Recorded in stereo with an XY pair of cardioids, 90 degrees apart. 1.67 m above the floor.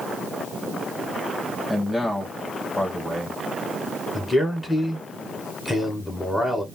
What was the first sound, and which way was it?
A man speaking, 20° left.